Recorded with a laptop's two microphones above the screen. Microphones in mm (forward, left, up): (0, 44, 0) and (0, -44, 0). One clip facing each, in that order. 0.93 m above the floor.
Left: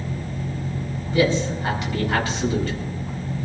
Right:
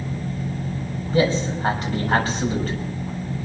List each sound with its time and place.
1.1 s a man speaking: 40° right (ahead or behind), 5 m